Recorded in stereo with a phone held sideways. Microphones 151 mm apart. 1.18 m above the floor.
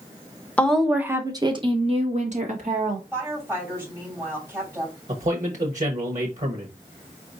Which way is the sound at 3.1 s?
15° right (ahead or behind).